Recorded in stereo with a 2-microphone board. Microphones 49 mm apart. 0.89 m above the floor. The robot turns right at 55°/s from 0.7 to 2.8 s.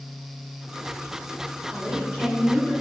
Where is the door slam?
I don't hear a door slam.